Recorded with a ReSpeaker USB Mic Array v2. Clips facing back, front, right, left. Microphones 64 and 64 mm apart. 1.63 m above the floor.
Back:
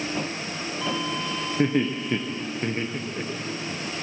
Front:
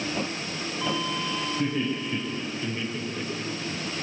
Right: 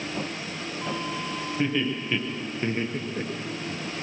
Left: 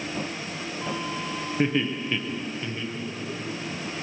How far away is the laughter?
About 1.0 m.